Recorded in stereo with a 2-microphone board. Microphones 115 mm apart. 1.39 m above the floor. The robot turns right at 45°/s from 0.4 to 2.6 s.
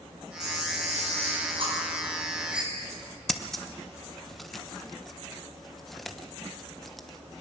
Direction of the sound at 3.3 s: Centre (ahead or behind).